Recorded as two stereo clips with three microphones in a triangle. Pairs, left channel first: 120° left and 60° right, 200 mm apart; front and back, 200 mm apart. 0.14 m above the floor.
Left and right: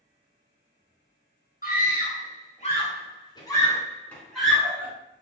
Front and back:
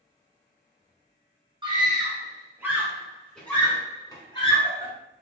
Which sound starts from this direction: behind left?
A scream, at 1.6 s.